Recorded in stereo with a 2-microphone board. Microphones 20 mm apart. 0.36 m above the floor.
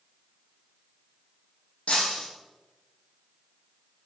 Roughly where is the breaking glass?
Left.